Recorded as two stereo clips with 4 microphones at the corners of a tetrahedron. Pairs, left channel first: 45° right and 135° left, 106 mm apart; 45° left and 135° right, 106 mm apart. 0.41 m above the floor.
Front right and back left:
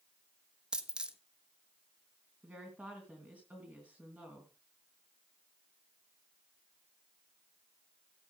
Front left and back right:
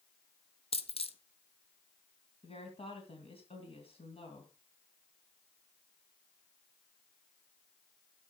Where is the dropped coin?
55° left, 0.9 m.